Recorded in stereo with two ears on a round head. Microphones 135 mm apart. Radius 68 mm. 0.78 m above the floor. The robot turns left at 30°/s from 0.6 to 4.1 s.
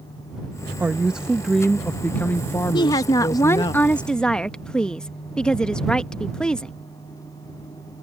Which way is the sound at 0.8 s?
160° right.